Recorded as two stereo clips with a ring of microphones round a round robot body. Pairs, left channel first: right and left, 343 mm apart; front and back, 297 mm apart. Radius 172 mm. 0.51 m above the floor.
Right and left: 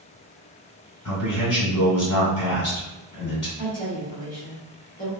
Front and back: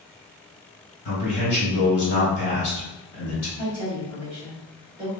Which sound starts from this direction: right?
A woman speaking, at 3.6 s.